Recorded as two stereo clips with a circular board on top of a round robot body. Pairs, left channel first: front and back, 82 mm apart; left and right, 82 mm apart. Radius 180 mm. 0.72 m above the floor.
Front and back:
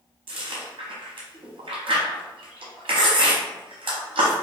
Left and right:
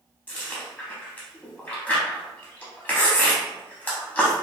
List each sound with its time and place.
0.3 s chewing: 160° left, 0.6 m